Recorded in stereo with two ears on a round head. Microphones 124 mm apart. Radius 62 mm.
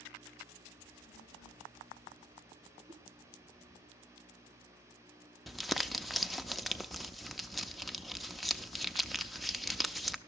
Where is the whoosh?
30° right (ahead or behind), 2.5 m.